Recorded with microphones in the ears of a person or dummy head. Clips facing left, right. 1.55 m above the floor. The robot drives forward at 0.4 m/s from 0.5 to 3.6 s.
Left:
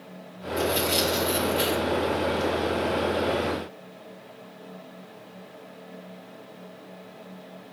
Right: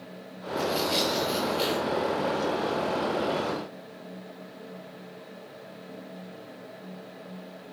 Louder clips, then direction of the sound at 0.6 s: Left 2 dB; 20° left (ahead or behind).